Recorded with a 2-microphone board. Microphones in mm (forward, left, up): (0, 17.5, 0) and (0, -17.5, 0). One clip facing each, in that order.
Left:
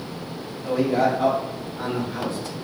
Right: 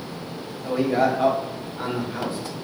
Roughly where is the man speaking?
Right.